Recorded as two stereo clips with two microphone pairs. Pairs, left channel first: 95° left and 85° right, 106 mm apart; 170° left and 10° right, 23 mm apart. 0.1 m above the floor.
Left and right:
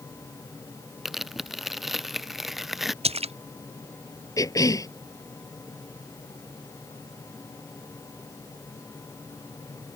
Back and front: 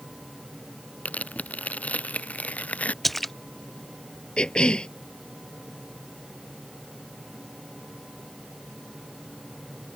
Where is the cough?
140° left.